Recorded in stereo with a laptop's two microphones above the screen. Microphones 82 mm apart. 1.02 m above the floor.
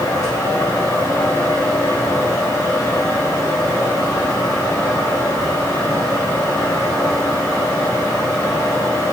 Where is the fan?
50° left (ahead or behind), 4 m.